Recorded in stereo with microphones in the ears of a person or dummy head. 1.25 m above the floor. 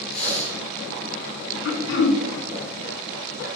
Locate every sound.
0.1 s breathing: 60° left (ahead or behind), 3.5 m
1.6 s throat clearing: 75° left (ahead or behind), 0.8 m